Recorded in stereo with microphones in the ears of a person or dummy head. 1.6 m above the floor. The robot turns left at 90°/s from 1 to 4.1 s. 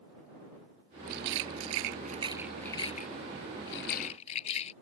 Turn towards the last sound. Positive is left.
turn(degrees=40)  # may be behind; listen again after turning